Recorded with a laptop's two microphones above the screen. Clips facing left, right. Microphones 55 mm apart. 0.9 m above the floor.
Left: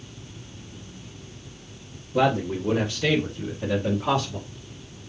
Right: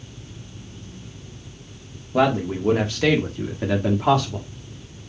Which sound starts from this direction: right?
A man speaking, at 2.1 s.